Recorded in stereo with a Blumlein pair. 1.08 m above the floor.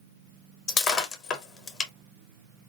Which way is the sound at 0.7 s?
25° left.